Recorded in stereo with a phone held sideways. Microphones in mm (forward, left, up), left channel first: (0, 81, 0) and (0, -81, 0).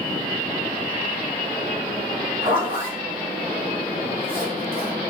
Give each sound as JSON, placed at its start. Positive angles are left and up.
{"t": 2.4, "sound": "a zipper", "side_deg": -25, "distance_m": 2.5}